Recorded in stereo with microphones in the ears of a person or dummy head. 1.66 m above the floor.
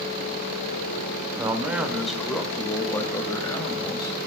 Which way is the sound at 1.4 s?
15° right (ahead or behind).